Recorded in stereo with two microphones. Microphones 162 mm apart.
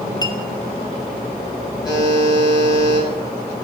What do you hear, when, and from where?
0.2 s a clink: 25° left (ahead or behind), 0.7 m
1.9 s a buzzer: 25° left (ahead or behind), 2.5 m